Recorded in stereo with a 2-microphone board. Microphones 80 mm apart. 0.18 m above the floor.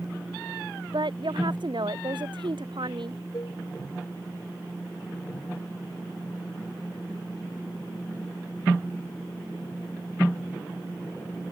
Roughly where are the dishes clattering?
Left.